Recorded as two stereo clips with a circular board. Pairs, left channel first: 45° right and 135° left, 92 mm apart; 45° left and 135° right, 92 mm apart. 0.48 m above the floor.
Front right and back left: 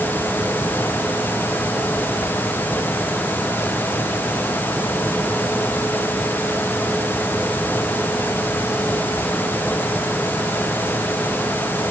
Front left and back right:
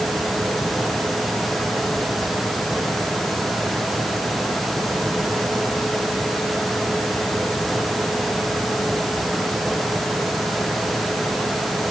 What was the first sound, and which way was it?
Only background noise.